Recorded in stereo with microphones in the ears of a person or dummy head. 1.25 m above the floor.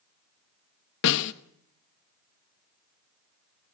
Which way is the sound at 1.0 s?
70° left (ahead or behind).